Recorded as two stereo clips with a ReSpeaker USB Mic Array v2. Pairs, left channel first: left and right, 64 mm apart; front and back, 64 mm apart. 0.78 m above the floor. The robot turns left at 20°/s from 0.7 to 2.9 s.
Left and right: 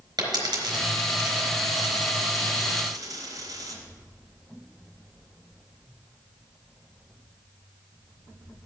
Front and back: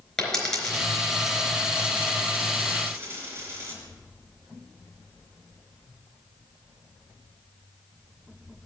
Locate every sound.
0.2 s a dropped coin: 80° right, 4 m; by 3.8 s 125° right, 4 m